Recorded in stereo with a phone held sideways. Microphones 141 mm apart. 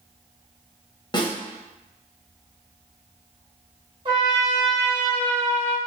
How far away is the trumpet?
About 1.5 m.